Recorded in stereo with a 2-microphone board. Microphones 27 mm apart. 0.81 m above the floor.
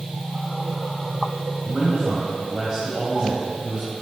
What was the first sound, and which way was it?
A man speaking, 15° right (ahead or behind).